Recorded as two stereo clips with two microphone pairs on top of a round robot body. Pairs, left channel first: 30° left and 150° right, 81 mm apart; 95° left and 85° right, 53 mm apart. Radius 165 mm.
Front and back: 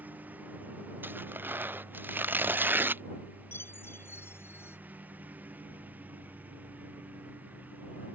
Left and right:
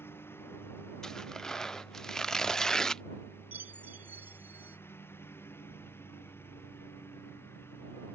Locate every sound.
0.0 s a lawn mower: 140° left
1.0 s tearing paper: 175° right
3.5 s a chime: 30° right